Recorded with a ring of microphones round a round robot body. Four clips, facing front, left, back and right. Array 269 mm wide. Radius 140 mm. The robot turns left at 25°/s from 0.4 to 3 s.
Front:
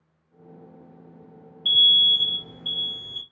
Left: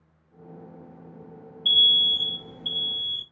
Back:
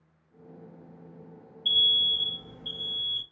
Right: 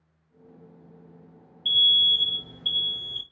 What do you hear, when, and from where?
1.6 s an alarm: 10° left, 0.6 m; by 3.2 s 25° right, 0.6 m